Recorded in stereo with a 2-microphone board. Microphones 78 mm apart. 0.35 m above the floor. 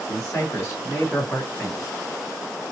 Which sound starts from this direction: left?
A man speaking, at 0.1 s.